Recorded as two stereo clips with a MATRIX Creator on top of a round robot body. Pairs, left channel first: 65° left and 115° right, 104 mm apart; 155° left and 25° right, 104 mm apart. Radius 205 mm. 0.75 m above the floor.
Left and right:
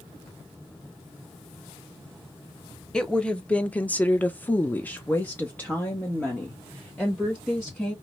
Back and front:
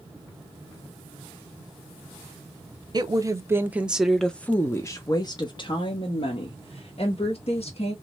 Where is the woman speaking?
10° right, 1.2 m; by 8.0 s 145° left, 2.5 m.